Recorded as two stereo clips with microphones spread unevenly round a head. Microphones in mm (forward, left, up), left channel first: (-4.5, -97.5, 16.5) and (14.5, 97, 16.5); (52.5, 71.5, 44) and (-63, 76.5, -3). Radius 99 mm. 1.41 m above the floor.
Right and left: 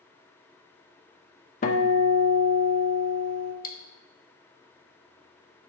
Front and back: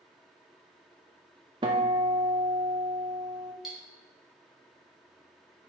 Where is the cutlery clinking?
70° right, 0.9 m.